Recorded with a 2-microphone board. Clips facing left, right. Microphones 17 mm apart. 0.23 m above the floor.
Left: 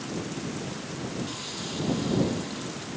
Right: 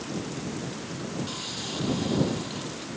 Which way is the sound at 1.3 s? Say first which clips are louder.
Right 1 dB; 10° right (ahead or behind).